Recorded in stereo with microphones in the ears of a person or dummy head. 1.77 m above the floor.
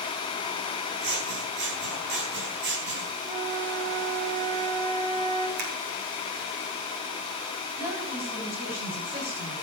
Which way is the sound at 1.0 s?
65° right (ahead or behind).